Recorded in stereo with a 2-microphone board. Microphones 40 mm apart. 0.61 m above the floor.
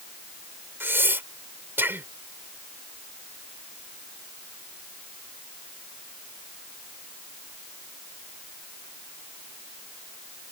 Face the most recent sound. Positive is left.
turn(degrees=-65)  # may be behind; listen again after turning